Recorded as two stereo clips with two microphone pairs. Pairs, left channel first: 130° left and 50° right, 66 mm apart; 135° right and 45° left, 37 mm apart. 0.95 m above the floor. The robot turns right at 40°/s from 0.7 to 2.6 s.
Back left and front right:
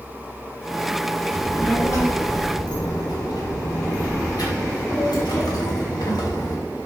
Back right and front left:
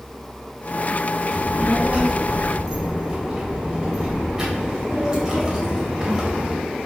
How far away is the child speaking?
About 3 m.